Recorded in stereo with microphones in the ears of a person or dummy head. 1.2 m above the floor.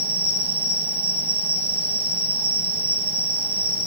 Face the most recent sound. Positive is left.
turn(degrees=-45)  # may be behind; listen again after turning